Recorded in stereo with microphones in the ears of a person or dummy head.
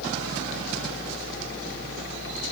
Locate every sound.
Only background noise.